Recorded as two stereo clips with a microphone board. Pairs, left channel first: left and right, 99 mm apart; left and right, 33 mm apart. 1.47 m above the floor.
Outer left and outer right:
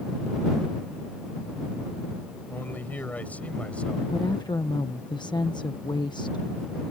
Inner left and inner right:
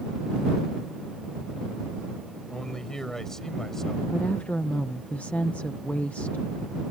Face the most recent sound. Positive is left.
turn(degrees=45)  # may be behind; listen again after turning